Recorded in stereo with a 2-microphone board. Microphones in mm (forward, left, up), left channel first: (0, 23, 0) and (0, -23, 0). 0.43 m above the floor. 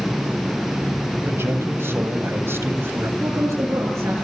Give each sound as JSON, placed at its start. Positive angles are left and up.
{"t": 1.2, "sound": "a man speaking", "side_deg": -60, "distance_m": 3.0}
{"t": 3.2, "sound": "a woman speaking", "side_deg": -80, "distance_m": 8.0}